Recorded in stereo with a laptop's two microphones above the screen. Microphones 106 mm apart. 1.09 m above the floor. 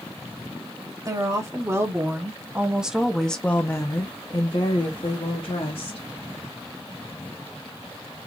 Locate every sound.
1.1 s a woman speaking: 35° right (ahead or behind), 1.6 m; by 6.0 s 60° left (ahead or behind), 1.4 m